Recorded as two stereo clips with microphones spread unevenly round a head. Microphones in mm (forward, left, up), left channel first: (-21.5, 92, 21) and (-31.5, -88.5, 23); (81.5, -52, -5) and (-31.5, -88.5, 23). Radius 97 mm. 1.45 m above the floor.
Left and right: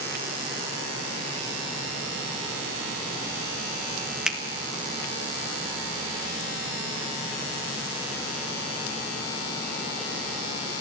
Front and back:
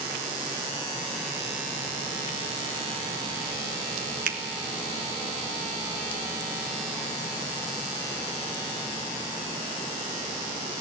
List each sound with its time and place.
4.3 s a finger snap: straight behind, 1.6 m